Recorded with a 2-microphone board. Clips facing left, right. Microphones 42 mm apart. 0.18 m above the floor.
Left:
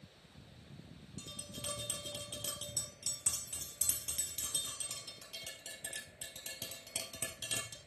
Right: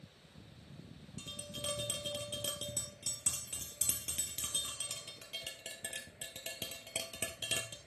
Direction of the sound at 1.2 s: 35° right (ahead or behind).